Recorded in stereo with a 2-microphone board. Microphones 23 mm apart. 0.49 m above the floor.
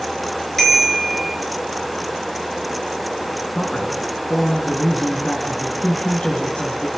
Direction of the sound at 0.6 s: 10° left (ahead or behind).